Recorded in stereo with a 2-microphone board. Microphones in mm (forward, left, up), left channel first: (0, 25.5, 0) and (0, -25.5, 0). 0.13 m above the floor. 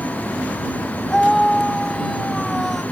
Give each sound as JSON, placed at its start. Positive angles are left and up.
{"t": 1.1, "sound": "a scream", "side_deg": 5}